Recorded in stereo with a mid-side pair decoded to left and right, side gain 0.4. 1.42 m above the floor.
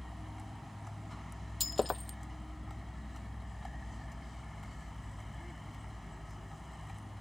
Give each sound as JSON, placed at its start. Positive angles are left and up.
{"t": 0.0, "sound": "a vehicle", "azimuth_deg": 5}
{"t": 1.6, "sound": "breaking glass", "azimuth_deg": 25}